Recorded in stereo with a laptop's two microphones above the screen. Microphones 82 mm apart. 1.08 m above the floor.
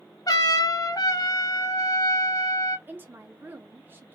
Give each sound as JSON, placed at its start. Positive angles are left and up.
{"t": 0.3, "sound": "a trumpet", "side_deg": 50, "distance_m": 0.7}
{"t": 2.9, "sound": "a woman speaking", "side_deg": -25, "distance_m": 0.6}